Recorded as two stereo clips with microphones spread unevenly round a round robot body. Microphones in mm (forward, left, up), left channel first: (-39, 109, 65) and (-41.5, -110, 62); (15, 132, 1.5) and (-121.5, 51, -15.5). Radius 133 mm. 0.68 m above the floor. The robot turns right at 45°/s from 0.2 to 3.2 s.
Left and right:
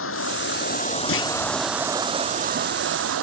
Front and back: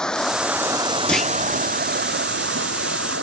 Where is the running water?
115° left; by 3.2 s 110° right.